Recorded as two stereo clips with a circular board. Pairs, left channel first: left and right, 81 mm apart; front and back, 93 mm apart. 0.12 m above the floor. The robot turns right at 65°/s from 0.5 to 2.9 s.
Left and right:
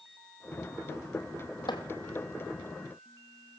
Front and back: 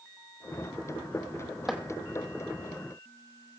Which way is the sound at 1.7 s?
95° left.